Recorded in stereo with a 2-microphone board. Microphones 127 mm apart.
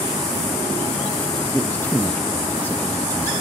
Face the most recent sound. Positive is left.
turn(degrees=15)  # may be behind; listen again after turning